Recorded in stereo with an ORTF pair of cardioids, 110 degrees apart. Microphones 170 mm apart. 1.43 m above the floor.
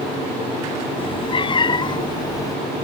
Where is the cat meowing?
35° left; by 2.6 s 20° left.